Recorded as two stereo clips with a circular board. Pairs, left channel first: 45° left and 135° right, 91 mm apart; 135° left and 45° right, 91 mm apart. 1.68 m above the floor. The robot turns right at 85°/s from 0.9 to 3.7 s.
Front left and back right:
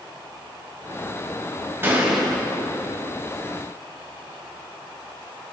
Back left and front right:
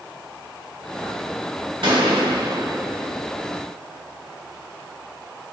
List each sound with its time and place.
1.8 s a gunshot: 70° right, 3 m; by 3.1 s 40° left, 3 m